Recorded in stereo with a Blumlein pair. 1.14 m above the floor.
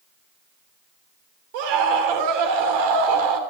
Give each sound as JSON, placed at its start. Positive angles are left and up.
{"t": 1.5, "sound": "a scream", "azimuth_deg": -50, "distance_m": 3.0}